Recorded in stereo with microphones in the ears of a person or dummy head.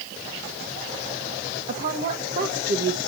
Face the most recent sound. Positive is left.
turn(degrees=-50)  # may be behind; listen again after turning